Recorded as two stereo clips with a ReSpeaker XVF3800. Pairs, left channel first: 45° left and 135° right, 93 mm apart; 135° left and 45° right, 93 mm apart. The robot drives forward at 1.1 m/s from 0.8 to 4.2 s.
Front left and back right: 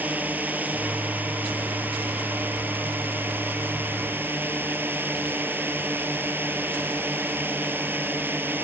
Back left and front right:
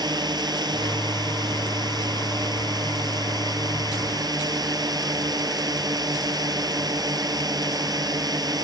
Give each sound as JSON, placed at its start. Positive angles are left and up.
{"t": 0.0, "sound": "a drone", "azimuth_deg": -65}